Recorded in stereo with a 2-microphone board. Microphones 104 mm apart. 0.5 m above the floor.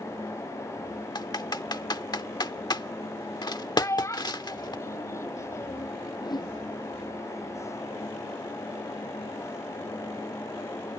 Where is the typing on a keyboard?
45° left (ahead or behind).